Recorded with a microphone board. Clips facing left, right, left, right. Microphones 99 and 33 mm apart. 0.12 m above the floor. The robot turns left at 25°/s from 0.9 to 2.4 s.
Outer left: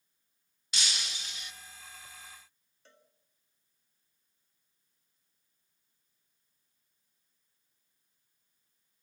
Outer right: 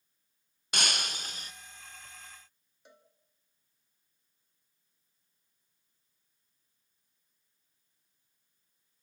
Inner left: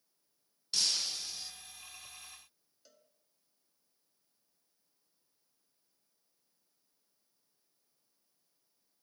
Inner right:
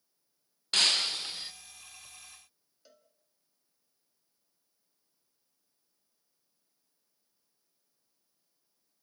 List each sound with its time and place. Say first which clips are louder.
0.7 s breaking glass: outer right 5 dB, inner right 7 dB; 55° right (ahead or behind), 1.4 m; by 1.5 s 40° right (ahead or behind), 1.4 m
2.9 s a cowbell: outer right 3 dB, inner right 4 dB; 15° right (ahead or behind), 1.5 m